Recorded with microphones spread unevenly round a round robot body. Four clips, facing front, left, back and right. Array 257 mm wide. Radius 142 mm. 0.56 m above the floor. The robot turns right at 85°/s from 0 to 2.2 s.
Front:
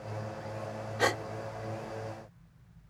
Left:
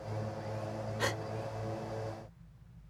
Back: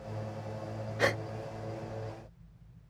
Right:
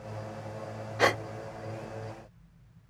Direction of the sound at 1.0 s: 70° right.